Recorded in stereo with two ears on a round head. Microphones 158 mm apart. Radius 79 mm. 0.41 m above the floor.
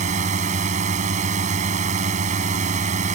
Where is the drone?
45° right (ahead or behind).